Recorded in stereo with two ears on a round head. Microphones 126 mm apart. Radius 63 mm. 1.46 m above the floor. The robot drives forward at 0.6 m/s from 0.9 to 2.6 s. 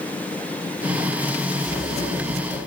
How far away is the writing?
About 9 m.